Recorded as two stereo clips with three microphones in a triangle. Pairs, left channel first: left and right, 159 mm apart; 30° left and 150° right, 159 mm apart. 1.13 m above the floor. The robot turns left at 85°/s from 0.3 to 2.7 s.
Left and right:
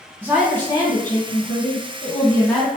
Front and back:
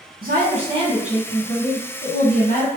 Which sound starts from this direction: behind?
A woman speaking, at 0.2 s.